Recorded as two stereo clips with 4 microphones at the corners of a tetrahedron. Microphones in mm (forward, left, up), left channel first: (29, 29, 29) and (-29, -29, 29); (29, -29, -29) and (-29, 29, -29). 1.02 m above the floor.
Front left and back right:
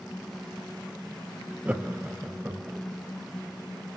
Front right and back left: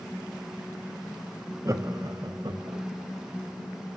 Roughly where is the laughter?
Behind.